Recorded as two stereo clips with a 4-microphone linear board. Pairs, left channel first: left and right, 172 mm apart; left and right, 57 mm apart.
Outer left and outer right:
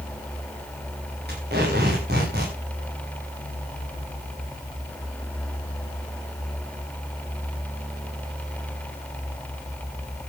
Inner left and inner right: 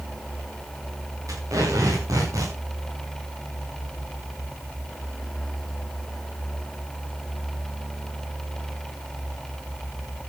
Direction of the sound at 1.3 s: 65° right (ahead or behind).